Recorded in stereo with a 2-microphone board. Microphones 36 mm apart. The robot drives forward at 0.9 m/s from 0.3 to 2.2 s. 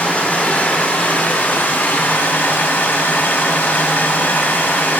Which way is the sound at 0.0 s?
55° left (ahead or behind).